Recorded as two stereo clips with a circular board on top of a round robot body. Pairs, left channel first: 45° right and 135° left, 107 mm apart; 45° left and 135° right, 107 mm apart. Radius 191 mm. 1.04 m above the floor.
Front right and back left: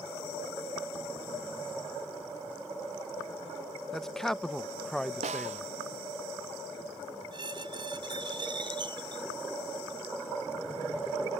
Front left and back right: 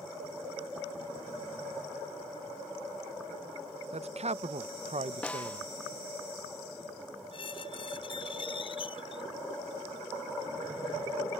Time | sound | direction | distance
3.9 | a man speaking | 130° right | ?
5.2 | a snare drum | 125° left | ?
7.3 | a squeak | 85° left | ?